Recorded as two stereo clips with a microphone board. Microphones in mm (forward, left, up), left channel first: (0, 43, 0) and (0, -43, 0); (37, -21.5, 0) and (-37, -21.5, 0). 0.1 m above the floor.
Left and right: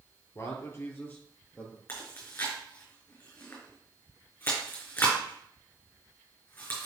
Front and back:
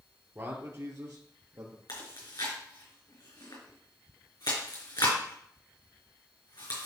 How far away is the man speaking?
About 1.7 m.